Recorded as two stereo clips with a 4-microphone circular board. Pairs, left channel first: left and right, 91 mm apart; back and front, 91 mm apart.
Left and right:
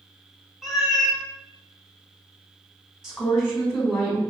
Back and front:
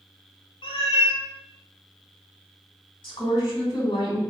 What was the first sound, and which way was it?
A cat meowing, 175° right.